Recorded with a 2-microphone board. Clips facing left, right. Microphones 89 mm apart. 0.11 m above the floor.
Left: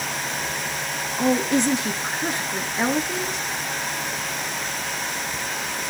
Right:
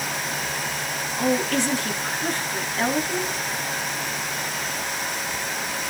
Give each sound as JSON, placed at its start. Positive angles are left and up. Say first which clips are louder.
{"t": 1.2, "sound": "a woman speaking", "louder": "left 2 dB", "side_deg": 20, "distance_m": 1.1}